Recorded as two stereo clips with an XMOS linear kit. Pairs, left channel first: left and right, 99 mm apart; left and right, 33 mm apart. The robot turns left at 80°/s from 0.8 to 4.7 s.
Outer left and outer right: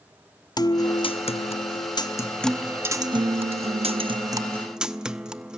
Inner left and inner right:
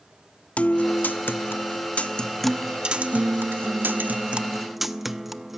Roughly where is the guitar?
Behind left.